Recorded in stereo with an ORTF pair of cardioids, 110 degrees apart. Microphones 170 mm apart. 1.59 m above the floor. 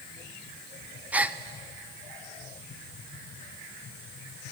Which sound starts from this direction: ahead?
A gasp, at 1.1 s.